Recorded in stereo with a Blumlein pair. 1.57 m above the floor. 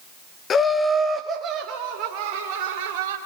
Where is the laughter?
25° left, 0.8 m; by 3.2 s 45° right, 3 m.